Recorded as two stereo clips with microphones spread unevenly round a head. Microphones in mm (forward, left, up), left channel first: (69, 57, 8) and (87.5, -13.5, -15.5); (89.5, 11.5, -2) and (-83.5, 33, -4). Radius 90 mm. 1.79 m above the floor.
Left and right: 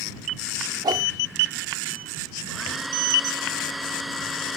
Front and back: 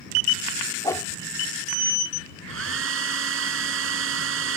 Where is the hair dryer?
165° right.